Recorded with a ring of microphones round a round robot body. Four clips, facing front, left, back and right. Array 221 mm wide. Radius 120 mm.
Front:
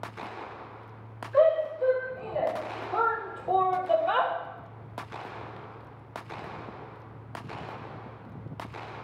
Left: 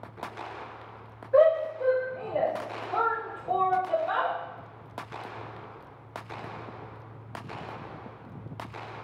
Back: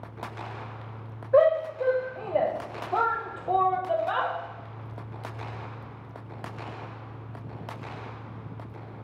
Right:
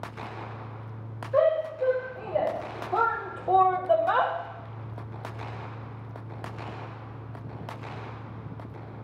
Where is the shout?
175° left, 1.8 m; by 4.3 s 55° right, 1.2 m.